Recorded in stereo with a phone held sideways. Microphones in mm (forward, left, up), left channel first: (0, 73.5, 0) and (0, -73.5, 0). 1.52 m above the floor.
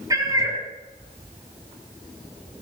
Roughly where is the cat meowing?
Right.